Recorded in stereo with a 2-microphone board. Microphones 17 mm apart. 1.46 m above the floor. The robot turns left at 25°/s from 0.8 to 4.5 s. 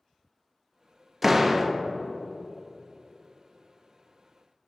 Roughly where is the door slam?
Centre.